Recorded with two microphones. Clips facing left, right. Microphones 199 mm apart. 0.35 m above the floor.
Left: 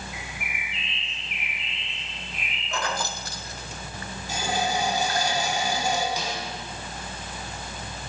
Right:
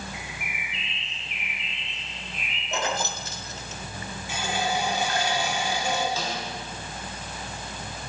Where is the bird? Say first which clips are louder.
Even; 40° right (ahead or behind), 3.5 m.